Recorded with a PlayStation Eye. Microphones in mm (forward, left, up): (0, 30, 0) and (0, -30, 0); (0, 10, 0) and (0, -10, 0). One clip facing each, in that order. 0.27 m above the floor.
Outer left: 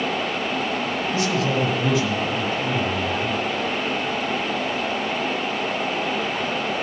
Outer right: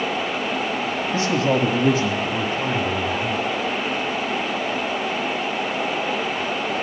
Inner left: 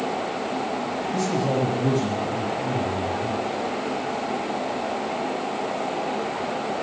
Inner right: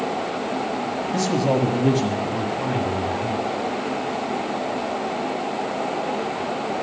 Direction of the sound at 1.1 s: 35° right (ahead or behind).